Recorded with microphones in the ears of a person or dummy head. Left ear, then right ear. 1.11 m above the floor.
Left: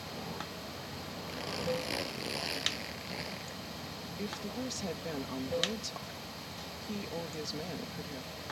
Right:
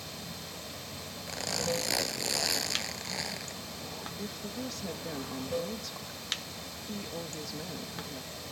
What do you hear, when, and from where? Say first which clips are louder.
0.0 s running water: left 1 dB; 15° right (ahead or behind)
1.3 s a zipper: right 3 dB; 45° right (ahead or behind)
4.2 s a woman speaking: even; 5° left (ahead or behind)